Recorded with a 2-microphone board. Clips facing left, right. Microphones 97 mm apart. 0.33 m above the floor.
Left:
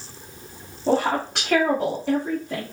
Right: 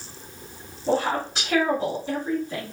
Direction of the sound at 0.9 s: 55° left (ahead or behind).